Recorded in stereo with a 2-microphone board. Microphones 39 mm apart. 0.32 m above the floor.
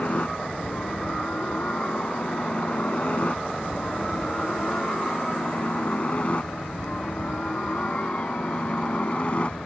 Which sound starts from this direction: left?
A helicopter, at 0.0 s.